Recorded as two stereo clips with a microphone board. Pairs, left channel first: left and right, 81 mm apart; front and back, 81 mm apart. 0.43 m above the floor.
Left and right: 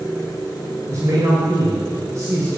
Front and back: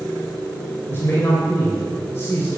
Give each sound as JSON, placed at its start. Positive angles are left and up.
{"t": 0.9, "sound": "a man speaking", "azimuth_deg": -50, "distance_m": 2.5}